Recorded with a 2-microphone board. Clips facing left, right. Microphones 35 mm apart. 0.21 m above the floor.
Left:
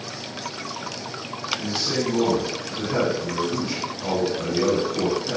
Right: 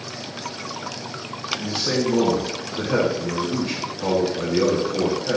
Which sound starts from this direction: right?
A man speaking, at 1.6 s.